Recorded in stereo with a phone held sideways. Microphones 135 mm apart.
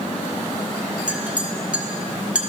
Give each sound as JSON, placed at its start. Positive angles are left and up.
{"t": 1.1, "sound": "a clink", "side_deg": -10, "distance_m": 0.8}